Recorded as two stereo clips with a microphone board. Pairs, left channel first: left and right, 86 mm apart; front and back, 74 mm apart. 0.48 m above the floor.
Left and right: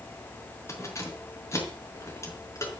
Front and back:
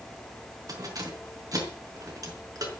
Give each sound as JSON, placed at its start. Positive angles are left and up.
{"t": 0.7, "sound": "keys jangling", "azimuth_deg": 145, "distance_m": 5.0}